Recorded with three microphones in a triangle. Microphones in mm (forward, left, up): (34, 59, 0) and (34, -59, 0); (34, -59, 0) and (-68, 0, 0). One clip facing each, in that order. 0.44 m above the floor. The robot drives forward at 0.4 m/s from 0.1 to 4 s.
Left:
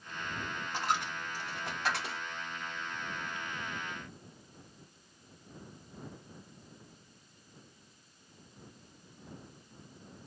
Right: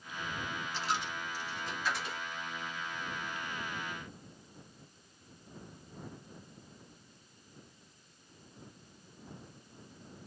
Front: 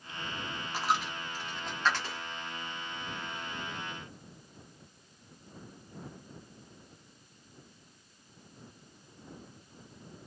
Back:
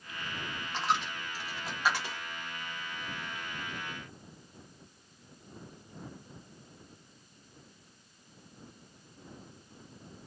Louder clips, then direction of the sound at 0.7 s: Left 3 dB, even; 55° left.